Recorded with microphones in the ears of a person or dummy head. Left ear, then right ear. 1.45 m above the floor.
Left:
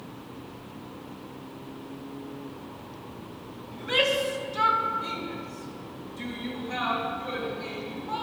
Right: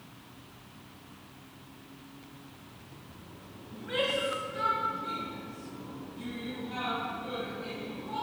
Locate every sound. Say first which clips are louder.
3.7 s a shout: left 6 dB; 85° left, 1.9 m; by 8.2 s 50° left (ahead or behind), 4 m